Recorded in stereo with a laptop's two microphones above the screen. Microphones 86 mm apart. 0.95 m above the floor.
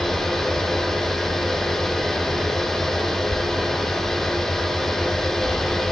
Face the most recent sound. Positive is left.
turn(degrees=5)  # may be behind; listen again after turning